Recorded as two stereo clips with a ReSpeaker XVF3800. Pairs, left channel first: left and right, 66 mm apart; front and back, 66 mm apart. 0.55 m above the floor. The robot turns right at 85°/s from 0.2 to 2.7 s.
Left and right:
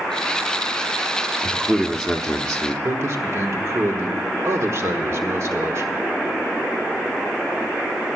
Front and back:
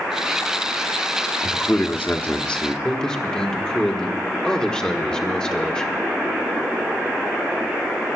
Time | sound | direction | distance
1.4 | a man speaking | 50° right | 0.8 m
2.8 | a man speaking | 75° right | 1.4 m